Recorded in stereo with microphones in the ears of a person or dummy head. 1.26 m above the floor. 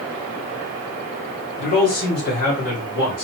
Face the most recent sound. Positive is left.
turn(degrees=60)  # may be behind; listen again after turning